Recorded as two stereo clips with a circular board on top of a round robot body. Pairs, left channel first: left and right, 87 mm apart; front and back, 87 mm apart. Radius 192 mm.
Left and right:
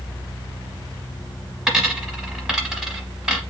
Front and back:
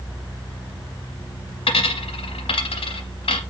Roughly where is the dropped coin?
Ahead.